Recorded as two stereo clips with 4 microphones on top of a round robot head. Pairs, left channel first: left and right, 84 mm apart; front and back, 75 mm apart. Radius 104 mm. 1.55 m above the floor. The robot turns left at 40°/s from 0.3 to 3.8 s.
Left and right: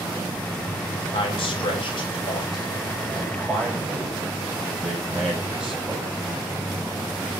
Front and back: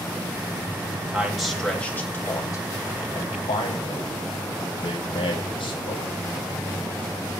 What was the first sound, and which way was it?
A man speaking, 100° left.